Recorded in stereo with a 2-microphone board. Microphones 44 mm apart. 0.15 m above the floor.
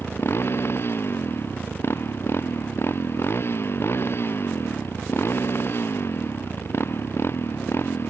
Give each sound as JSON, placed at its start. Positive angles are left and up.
{"t": 0.0, "sound": "a motorcycle", "side_deg": 65}